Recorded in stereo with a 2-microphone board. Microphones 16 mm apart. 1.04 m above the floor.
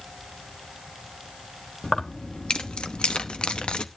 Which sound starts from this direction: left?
Keys jangling, at 1.8 s.